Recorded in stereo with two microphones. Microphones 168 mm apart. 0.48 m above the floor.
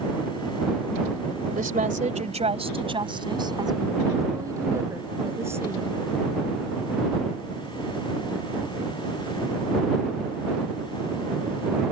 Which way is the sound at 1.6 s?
55° right (ahead or behind).